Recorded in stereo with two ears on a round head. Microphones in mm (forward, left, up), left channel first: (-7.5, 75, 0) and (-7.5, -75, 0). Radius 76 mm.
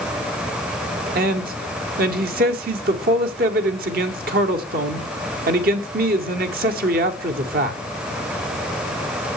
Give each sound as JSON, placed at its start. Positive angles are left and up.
{"t": 1.1, "sound": "a man speaking", "side_deg": -60, "distance_m": 1.6}